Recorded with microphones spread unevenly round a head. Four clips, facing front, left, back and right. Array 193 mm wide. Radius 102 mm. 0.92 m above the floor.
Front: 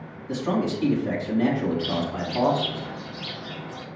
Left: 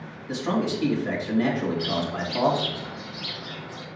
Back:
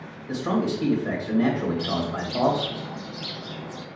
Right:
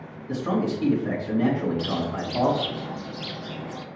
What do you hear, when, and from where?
0.3 s a man speaking: straight behind, 3.5 m
1.8 s a bird: 110° right, 0.5 m